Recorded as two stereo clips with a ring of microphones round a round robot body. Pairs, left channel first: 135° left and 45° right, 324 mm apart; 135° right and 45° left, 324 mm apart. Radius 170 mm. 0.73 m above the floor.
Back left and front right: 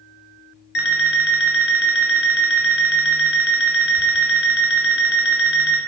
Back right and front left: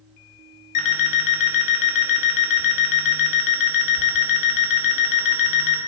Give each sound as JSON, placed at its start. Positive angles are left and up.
{"t": 0.8, "sound": "an alarm clock", "azimuth_deg": -165, "distance_m": 1.0}